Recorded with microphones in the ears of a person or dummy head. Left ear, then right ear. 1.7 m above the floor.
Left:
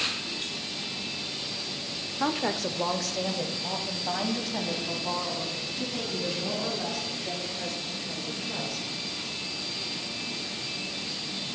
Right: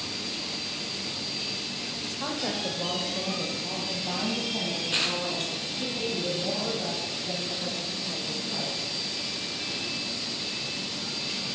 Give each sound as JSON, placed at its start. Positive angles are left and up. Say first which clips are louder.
{"t": 2.2, "sound": "a woman speaking", "louder": "left 4 dB", "side_deg": 85, "distance_m": 0.5}